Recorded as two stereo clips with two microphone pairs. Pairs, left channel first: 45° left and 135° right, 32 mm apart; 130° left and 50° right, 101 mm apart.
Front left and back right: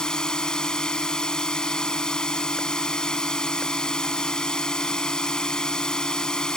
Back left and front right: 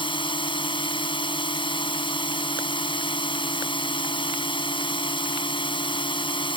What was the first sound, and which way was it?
A drone, 110° left.